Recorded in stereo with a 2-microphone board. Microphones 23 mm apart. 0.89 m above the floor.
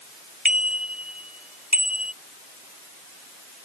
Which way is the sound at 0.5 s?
70° right (ahead or behind).